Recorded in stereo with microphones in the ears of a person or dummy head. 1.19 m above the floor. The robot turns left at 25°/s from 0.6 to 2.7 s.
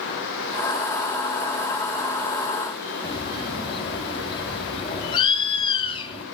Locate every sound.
3.0 s a bird: 30° left (ahead or behind), 3 m